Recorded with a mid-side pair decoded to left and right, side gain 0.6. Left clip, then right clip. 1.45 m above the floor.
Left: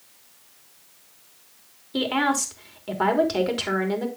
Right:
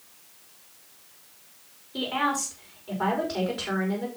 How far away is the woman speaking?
About 3.5 m.